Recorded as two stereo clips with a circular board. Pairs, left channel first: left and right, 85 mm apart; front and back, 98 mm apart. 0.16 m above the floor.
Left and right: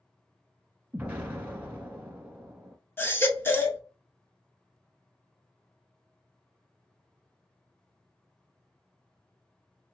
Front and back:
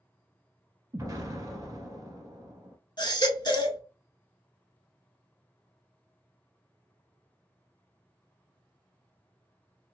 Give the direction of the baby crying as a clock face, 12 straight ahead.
11 o'clock.